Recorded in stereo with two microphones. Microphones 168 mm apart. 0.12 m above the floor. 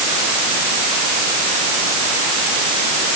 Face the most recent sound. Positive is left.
No sound to turn to.